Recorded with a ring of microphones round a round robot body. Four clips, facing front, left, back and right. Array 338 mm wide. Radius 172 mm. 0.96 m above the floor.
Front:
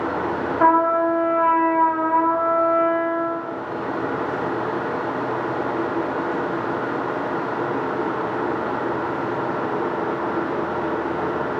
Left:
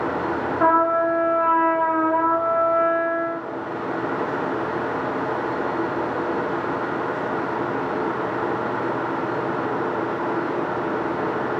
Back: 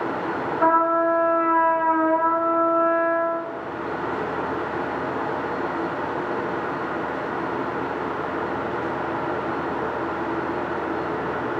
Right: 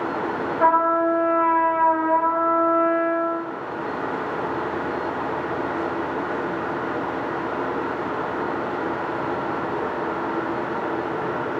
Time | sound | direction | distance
0.6 | a trumpet | 15° left | 0.8 m